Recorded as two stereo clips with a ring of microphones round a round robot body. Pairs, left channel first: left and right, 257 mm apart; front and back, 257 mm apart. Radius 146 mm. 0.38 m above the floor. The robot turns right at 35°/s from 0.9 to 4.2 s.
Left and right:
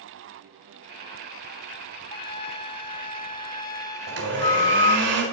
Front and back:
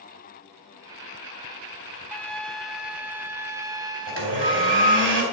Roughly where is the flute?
Left.